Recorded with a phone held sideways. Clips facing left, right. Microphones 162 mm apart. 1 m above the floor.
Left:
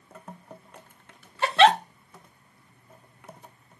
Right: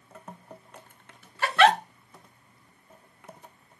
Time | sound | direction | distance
1.4 | a giggle | 25° left (ahead or behind) | 0.6 m